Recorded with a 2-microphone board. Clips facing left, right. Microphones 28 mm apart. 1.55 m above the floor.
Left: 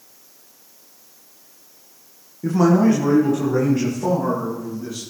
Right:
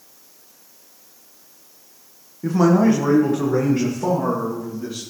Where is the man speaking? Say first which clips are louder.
Even; 10° right (ahead or behind), 1.0 m; by 5.0 s 35° right (ahead or behind), 3 m.